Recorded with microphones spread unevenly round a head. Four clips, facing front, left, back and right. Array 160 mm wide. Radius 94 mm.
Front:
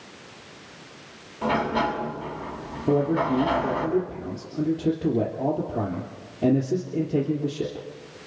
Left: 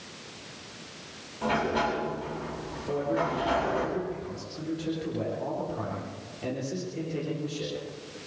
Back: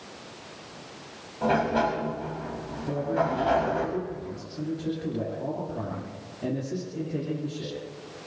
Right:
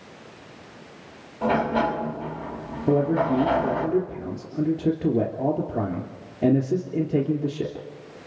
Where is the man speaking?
60° right, 3 m.